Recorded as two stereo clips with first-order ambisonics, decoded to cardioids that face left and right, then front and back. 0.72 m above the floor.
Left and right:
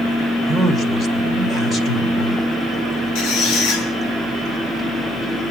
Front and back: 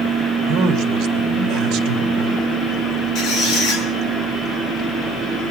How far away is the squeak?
About 6.5 m.